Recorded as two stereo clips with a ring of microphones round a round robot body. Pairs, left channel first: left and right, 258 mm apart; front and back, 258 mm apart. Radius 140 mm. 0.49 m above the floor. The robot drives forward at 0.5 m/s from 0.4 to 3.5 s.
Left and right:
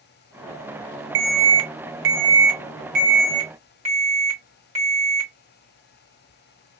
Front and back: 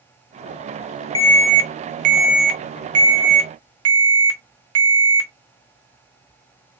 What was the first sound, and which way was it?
An alarm, 70° right.